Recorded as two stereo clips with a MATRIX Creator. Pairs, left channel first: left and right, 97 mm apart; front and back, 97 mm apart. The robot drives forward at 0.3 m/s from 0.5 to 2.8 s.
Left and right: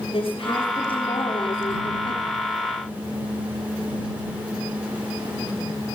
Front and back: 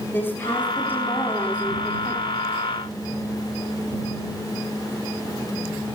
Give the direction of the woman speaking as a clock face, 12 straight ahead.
10 o'clock.